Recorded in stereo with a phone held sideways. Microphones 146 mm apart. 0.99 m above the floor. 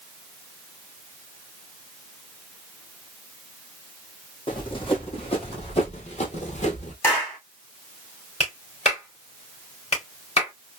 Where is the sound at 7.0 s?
15° left (ahead or behind), 2 m.